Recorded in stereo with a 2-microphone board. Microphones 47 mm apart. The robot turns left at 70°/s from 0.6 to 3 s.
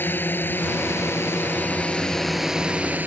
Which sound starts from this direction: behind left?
A drone, at 0.0 s.